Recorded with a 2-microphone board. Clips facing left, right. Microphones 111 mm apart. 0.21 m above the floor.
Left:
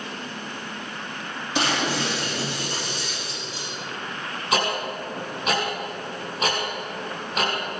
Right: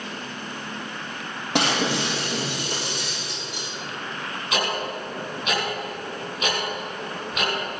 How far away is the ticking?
About 5 m.